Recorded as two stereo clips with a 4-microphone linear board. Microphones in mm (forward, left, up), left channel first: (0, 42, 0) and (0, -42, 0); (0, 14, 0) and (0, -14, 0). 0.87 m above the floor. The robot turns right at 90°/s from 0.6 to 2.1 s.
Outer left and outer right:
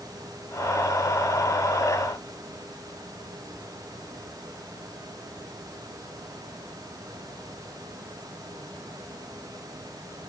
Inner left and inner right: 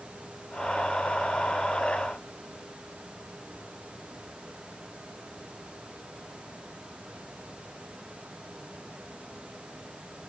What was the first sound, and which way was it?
Only background noise.